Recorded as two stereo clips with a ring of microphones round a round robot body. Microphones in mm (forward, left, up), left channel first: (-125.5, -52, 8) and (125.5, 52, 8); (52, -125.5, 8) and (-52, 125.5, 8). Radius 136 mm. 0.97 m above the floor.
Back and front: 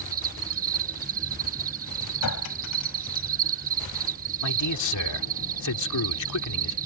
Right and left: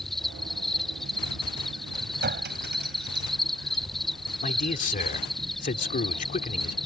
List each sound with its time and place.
0.0 s an insect: 20° left
2.2 s a clink: 170° left
4.4 s a man speaking: 130° right